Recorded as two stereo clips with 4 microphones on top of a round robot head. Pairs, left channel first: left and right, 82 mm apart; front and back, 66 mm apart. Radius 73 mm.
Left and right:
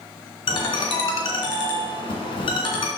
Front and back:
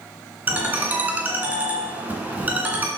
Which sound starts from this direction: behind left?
A ringtone, at 0.5 s.